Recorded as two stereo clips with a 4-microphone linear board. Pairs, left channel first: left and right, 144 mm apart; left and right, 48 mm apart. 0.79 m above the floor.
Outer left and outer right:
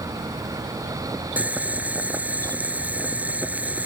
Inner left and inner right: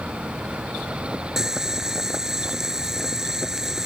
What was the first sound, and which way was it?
Boiling, 10° right (ahead or behind).